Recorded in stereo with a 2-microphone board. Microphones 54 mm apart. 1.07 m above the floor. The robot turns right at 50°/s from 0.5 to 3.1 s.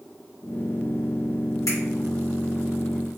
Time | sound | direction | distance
1.7 | a finger snap | 80° left | 1.5 m